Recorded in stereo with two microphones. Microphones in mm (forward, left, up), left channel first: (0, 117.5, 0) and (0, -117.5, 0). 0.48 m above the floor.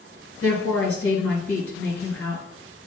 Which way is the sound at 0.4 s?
65° left (ahead or behind).